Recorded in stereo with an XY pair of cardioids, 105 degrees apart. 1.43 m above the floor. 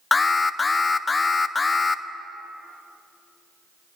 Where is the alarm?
25° left, 0.6 m.